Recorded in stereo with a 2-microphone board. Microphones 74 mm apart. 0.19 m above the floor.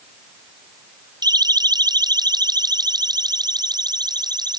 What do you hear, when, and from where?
1.2 s a siren: 65° right (ahead or behind)